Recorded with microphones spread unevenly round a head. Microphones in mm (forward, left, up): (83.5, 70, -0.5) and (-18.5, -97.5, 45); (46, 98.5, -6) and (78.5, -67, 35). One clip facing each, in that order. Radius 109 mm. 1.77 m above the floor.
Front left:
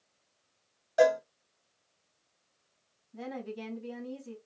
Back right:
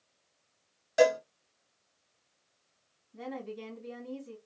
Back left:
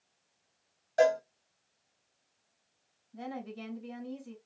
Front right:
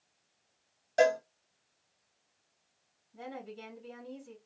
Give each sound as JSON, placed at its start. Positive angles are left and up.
{"t": 1.0, "sound": "a cowbell", "azimuth_deg": -115, "distance_m": 0.9}
{"t": 3.1, "sound": "a woman speaking", "azimuth_deg": 80, "distance_m": 2.5}